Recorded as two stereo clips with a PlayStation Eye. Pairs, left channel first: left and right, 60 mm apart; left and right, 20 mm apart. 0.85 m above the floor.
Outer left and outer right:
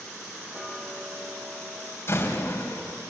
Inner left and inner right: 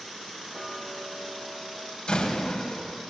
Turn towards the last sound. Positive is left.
turn(degrees=40)  # may be behind; listen again after turning